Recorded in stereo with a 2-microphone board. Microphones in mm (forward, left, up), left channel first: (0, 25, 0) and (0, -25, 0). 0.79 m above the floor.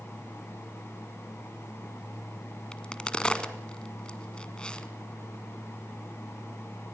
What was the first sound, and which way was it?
A crack, 20° left (ahead or behind).